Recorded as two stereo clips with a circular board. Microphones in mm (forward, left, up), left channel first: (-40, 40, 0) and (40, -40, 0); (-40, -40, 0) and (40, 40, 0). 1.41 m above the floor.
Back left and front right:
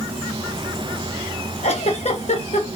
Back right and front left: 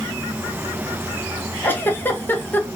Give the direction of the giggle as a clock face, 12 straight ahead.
7 o'clock.